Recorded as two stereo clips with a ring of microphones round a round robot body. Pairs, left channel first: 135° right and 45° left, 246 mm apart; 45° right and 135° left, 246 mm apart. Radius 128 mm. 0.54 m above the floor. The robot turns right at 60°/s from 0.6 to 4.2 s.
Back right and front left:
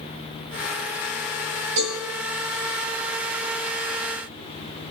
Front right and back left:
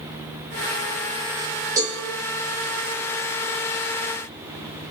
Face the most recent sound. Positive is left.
turn(degrees=-155)